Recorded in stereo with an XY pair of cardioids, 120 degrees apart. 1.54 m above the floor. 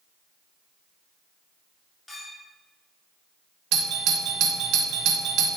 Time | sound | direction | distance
2.1 | a clink | 25° left | 3 m
3.7 | a doorbell | 65° right | 1.2 m